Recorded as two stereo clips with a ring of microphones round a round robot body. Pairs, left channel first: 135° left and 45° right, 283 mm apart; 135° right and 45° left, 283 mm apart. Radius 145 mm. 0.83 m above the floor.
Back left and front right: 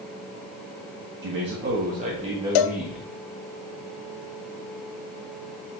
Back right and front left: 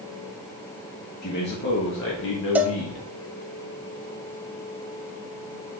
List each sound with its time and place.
1.2 s a man speaking: 85° right, 1.7 m; by 3.0 s 140° right, 1.3 m
2.5 s a cowbell: 130° left, 0.6 m